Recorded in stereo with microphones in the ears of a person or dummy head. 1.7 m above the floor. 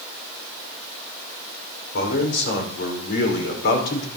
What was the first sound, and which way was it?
A man speaking, 70° left (ahead or behind).